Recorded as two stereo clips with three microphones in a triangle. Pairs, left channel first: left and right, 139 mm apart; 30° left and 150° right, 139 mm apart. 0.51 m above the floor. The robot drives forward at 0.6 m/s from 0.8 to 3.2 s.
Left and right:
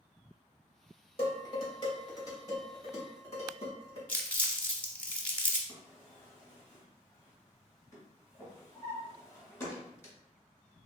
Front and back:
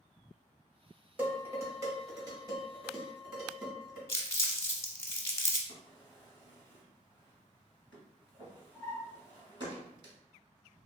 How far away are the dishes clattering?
About 1.3 m.